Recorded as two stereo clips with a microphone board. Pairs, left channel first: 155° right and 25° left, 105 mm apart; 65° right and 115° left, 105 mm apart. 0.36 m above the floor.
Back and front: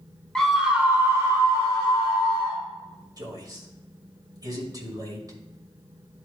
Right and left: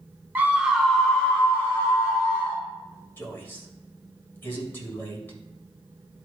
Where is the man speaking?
10° right, 1.9 m.